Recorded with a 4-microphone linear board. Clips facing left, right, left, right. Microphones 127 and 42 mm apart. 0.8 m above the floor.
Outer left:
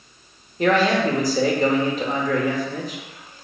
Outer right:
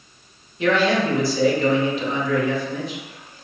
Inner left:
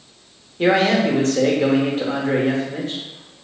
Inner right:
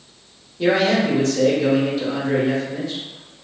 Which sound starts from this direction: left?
A man speaking, at 0.6 s.